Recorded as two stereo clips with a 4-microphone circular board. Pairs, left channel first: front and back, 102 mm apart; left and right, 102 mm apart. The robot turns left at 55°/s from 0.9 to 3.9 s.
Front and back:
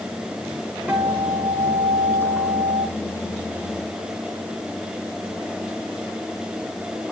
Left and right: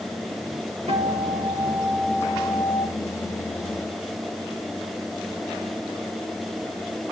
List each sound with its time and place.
0.9 s a guitar: 100° right, 5.5 m; by 2.9 s 150° left, 5.5 m